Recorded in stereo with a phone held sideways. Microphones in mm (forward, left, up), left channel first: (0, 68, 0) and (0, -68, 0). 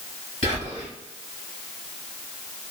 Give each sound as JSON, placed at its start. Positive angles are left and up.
{"t": 0.4, "sound": "whispering", "side_deg": -65, "distance_m": 1.9}